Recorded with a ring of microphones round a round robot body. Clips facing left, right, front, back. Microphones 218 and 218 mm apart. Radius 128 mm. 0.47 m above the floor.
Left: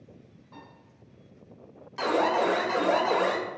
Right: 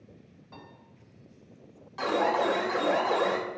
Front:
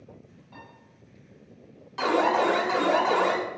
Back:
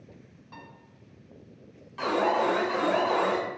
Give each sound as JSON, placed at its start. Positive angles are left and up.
{"t": 0.5, "sound": "a piano", "azimuth_deg": -155, "distance_m": 2.5}
{"t": 2.0, "sound": "an alarm", "azimuth_deg": 35, "distance_m": 1.3}